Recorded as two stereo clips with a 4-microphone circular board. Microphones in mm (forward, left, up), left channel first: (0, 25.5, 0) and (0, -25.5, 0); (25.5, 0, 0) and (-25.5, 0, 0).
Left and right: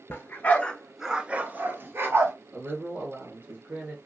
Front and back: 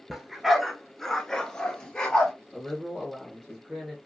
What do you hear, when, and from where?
0.1 s a dog barking: 100° left, 0.7 m; by 2.3 s 75° right, 1.1 m
2.5 s a man speaking: 95° right, 1.5 m